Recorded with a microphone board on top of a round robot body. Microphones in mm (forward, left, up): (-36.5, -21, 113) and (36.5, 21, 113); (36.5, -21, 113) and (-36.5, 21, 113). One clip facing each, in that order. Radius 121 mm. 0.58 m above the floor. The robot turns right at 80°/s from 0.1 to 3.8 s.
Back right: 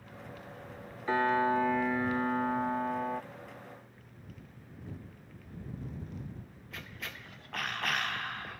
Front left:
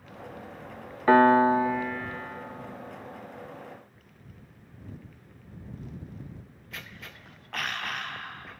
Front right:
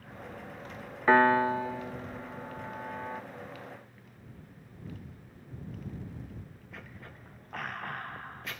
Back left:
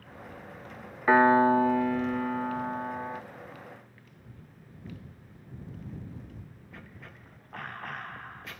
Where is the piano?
65° left; by 3.2 s 125° right.